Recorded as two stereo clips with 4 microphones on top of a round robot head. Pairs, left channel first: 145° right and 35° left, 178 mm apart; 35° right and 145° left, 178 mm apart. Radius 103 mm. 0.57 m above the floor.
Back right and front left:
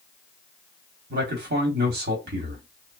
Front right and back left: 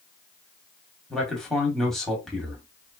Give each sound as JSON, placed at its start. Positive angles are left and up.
{"t": 1.1, "sound": "a man speaking", "azimuth_deg": 50, "distance_m": 1.2}